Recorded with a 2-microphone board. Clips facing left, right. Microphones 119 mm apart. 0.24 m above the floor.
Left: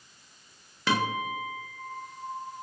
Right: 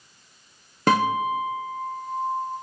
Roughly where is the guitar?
Right.